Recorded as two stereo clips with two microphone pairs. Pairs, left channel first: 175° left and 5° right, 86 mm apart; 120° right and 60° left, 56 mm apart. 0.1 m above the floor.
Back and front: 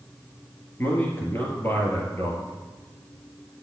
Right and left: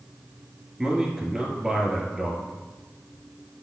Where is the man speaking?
140° left, 1.7 m.